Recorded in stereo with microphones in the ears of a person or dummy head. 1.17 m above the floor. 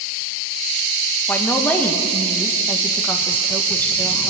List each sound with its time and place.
1.3 s a woman speaking: 5° left (ahead or behind), 1.3 m